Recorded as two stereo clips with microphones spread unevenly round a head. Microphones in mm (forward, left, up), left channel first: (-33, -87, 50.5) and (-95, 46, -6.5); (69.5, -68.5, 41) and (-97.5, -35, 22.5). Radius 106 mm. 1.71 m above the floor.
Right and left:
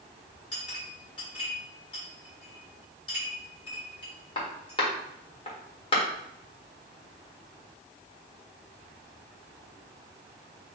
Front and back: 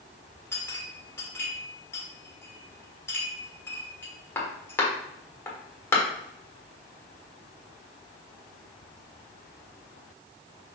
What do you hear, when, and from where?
0.5 s a clink: 80° right, 1.5 m